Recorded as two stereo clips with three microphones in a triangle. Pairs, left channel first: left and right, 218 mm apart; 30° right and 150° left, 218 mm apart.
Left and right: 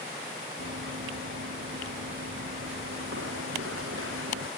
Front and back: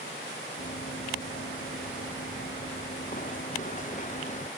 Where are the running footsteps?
75° right; by 4.5 s 85° right.